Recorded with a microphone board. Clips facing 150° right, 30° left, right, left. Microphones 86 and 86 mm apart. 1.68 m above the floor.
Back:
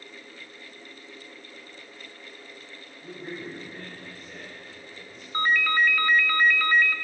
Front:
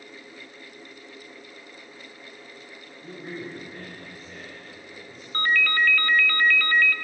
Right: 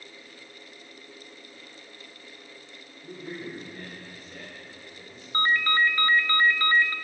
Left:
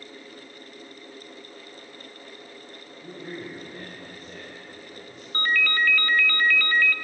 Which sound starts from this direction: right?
A ringtone, at 5.3 s.